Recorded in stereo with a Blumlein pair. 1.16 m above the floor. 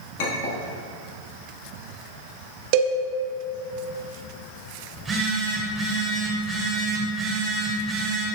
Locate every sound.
0.2 s a clink: 50° left, 1.4 m
2.7 s a cowbell: 45° right, 0.8 m
4.9 s a phone buzzing: 10° right, 2.5 m